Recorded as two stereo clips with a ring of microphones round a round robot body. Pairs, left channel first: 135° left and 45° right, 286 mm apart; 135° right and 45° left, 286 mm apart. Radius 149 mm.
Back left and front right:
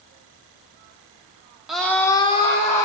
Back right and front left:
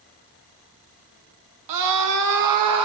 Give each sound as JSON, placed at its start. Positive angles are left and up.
{"t": 1.7, "sound": "a scream", "azimuth_deg": 45, "distance_m": 0.8}